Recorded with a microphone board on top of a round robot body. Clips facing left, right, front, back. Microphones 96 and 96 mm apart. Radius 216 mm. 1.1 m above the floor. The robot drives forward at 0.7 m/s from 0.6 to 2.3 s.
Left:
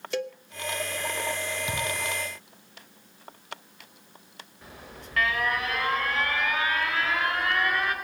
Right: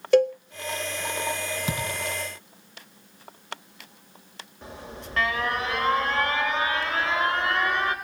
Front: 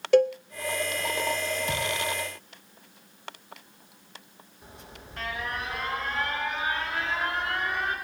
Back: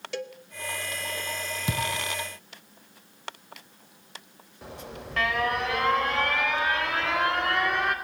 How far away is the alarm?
About 4.5 m.